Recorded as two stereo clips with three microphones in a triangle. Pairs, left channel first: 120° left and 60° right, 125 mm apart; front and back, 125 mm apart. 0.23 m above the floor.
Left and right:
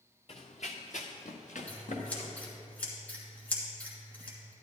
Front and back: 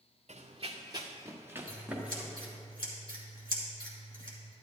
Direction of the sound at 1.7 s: 45° left.